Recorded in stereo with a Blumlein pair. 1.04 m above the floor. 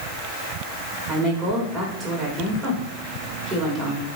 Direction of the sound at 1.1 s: 25° right.